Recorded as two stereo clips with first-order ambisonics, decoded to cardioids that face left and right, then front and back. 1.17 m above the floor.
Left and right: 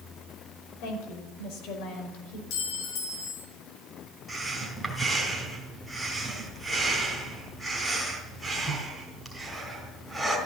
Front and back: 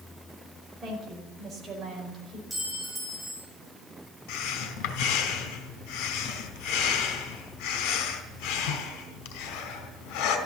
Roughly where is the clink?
Left.